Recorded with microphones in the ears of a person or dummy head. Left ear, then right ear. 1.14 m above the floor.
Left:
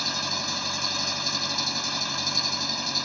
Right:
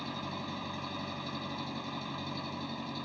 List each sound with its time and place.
0.0 s an engine running: 65° left (ahead or behind)